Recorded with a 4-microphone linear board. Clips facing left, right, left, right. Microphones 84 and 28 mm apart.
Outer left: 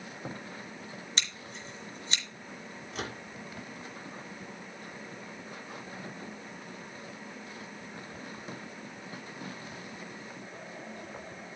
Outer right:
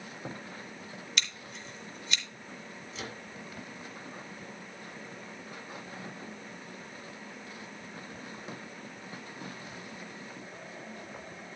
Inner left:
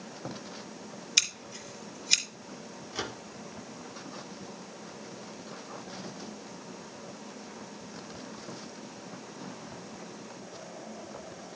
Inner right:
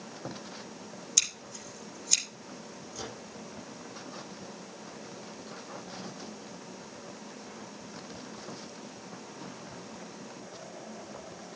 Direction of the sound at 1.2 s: 30° left (ahead or behind).